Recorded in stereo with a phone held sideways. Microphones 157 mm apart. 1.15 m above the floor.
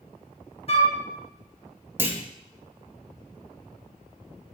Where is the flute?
40° left (ahead or behind), 1.3 m.